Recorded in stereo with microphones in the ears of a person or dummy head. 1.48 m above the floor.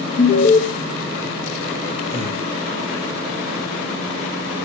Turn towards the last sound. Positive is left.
turn(degrees=35)  # may be behind; listen again after turning